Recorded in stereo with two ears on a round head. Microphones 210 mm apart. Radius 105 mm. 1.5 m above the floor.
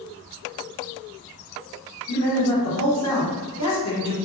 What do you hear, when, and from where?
2.1 s a man speaking: 75° left (ahead or behind), 1.2 m